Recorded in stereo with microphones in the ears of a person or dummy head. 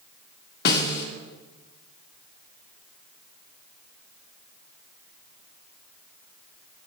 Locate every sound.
0.7 s a snare drum: 60° left (ahead or behind), 1.7 m